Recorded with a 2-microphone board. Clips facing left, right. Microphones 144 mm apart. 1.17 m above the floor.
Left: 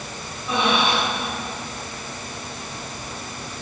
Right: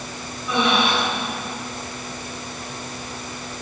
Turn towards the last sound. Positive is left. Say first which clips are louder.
# right 1 dB
turn(degrees=30)  # may be behind; listen again after turning